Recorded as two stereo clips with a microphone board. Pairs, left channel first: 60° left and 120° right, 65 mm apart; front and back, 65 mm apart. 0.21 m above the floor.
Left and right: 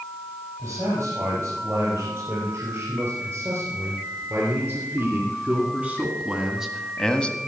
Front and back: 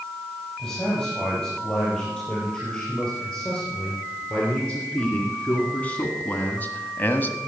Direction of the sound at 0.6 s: 80° right.